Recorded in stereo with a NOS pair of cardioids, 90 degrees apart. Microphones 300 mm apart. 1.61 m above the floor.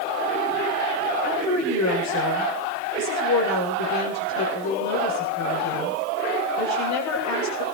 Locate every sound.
1.2 s a woman speaking: 65° left, 8 m